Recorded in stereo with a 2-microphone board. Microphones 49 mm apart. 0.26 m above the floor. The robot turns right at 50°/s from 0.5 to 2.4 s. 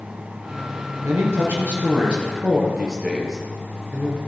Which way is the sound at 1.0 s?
85° right.